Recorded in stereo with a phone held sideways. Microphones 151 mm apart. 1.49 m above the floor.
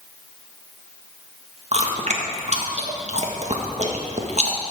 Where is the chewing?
45° right (ahead or behind), 1.5 m.